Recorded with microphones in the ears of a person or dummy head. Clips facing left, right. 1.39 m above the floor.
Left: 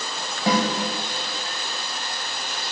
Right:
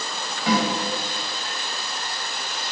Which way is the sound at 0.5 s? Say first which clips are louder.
Even; 35° left (ahead or behind).